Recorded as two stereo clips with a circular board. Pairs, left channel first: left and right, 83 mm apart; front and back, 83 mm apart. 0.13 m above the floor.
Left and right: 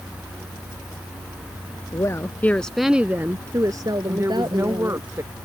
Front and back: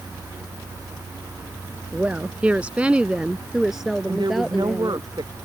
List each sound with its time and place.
1.9 s a woman speaking: 115° left; by 5.1 s 90° right
4.1 s a woman speaking: 145° right